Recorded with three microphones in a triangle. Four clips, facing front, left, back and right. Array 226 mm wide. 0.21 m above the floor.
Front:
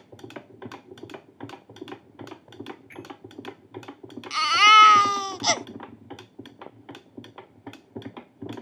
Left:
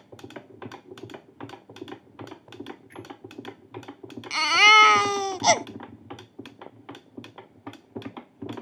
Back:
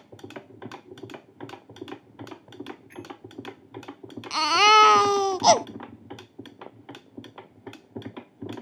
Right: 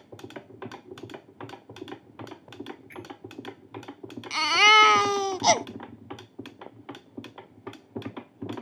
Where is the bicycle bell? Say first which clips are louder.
Even, back 1 dB; 35° right.